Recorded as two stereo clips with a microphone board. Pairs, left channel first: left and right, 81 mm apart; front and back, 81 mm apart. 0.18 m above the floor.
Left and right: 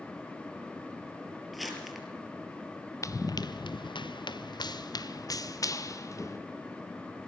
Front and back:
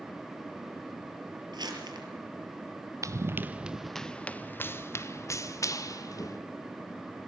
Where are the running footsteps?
135° left, 0.9 m; by 6.4 s 40° left, 2.5 m.